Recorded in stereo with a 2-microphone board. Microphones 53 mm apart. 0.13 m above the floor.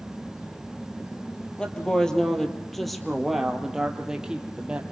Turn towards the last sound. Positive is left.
turn(degrees=-20)  # may be behind; listen again after turning